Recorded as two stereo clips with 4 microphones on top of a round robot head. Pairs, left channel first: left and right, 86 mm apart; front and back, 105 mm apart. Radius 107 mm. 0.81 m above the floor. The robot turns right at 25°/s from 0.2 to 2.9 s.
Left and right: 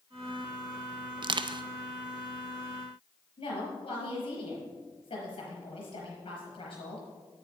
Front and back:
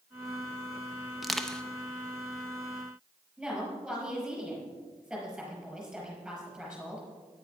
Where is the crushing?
95° right, 0.6 m; by 1.6 s 85° right, 0.6 m.